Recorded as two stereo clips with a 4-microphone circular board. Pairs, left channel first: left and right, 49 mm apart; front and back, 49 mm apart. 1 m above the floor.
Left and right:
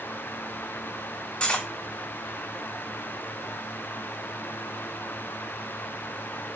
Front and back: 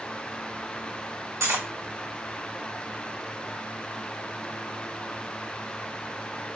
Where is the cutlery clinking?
155° left, 1.5 m.